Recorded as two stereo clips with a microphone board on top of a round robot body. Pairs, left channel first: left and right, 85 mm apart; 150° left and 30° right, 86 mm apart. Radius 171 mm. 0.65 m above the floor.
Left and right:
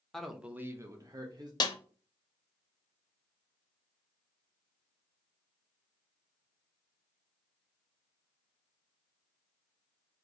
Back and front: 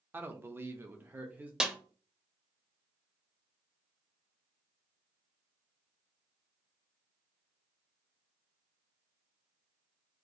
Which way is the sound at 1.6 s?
50° left.